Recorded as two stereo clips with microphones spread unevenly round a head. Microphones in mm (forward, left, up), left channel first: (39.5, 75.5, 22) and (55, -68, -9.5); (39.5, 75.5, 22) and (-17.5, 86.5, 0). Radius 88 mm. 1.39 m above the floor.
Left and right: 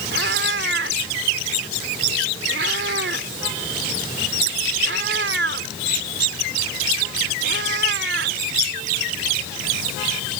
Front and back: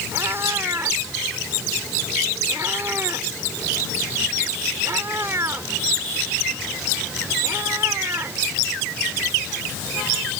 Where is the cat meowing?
110° right.